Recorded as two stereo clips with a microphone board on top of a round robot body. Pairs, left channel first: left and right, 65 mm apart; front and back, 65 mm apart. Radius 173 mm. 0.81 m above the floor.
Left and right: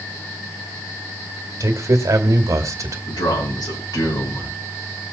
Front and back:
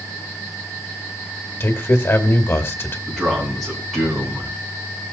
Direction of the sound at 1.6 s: 50° right.